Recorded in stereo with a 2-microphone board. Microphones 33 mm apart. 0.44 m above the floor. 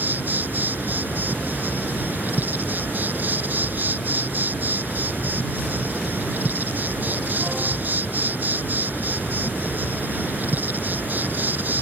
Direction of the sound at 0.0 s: 75° right (ahead or behind).